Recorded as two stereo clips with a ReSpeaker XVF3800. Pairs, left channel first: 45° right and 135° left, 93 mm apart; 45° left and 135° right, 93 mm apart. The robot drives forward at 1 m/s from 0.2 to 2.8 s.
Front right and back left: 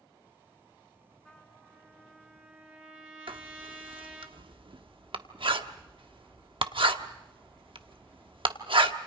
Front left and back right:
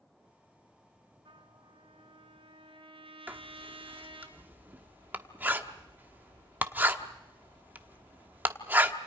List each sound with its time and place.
1.2 s a trumpet: 130° right, 2 m; by 4.3 s 150° right, 3 m
3.3 s writing: 155° left, 1.0 m